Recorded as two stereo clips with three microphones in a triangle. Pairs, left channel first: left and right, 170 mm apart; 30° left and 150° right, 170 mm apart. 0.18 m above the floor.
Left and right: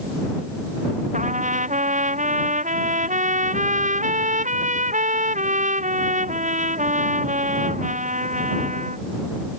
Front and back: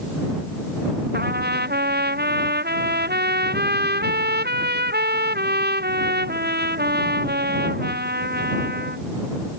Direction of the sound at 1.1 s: 135° right.